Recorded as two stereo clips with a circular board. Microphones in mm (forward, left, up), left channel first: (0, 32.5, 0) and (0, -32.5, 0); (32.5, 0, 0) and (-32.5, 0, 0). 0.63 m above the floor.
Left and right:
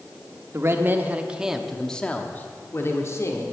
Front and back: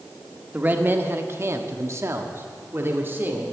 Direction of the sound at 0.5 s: 125° right.